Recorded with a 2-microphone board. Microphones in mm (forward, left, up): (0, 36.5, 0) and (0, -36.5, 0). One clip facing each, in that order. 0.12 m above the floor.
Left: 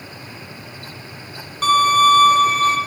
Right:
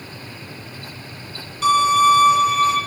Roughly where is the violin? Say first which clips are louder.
Left 1 dB; left.